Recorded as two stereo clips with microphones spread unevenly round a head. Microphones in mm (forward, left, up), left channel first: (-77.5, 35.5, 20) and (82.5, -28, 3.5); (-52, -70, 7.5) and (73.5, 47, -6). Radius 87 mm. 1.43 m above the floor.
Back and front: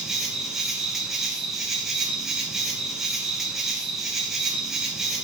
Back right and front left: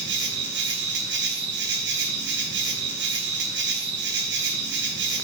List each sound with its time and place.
0.0 s an insect: 65° left, 3 m